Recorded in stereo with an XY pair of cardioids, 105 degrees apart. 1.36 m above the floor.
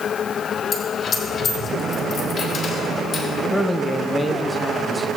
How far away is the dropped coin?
About 2 m.